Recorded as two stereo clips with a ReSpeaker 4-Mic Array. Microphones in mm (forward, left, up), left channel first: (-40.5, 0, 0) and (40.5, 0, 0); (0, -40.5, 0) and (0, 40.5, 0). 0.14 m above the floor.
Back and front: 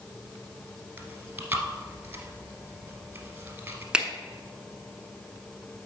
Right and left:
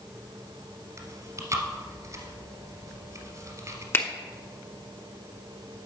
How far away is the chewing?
About 1.4 m.